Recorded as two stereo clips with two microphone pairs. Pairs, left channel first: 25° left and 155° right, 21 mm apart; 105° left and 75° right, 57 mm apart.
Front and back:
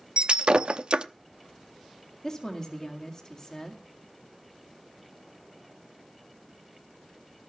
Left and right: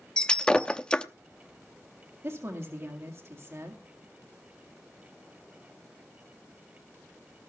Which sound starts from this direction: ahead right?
A woman speaking, at 2.2 s.